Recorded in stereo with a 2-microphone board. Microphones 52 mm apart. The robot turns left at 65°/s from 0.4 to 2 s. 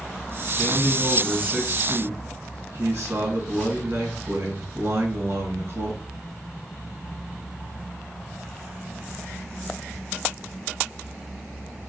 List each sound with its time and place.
0.6 s a man speaking: 30° left, 2 m; by 6.0 s 60° right, 2 m